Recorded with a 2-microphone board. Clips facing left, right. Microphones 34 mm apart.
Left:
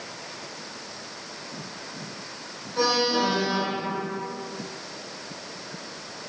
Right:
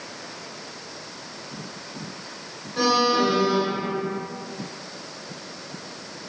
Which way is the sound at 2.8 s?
25° right (ahead or behind).